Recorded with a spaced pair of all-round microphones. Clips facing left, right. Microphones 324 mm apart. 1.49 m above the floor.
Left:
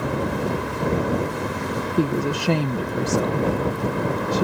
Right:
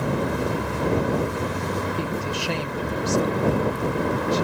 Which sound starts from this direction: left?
A woman speaking, at 2.0 s.